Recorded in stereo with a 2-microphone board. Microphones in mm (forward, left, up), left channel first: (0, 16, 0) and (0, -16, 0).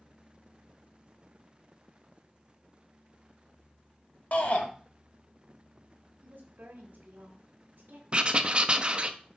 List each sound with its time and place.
4.3 s a shout: 50° left (ahead or behind), 1.6 m
6.2 s a woman speaking: 70° right (ahead or behind), 1.4 m
8.1 s writing: 30° right (ahead or behind), 0.5 m